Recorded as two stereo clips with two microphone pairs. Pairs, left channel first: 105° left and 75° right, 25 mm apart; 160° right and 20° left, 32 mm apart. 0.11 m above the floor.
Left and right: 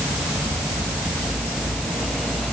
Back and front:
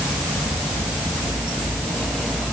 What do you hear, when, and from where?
Only background noise.